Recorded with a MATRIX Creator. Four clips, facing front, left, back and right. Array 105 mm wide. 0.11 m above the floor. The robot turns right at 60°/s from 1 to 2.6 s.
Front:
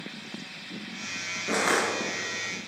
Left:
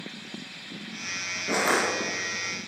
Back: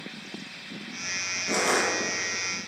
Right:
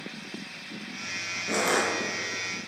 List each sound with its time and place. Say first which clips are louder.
1.5 s crushing: left 1 dB, even; 25° left, 1.8 m; by 1.9 s 50° left, 1.8 m